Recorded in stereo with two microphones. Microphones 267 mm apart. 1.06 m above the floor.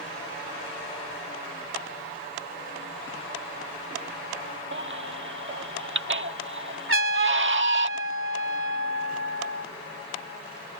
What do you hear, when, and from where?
4.7 s a baby crying: 45° right (ahead or behind)
6.9 s a trumpet: 50° right (ahead or behind)